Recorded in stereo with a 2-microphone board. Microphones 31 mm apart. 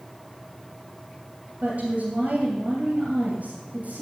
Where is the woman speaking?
50° right (ahead or behind), 2.5 m.